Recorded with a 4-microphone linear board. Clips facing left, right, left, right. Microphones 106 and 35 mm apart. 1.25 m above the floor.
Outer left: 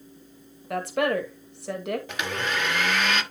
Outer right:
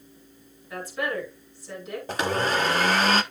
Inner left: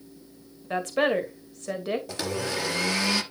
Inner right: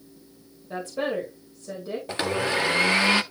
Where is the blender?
35° right (ahead or behind), 0.8 m.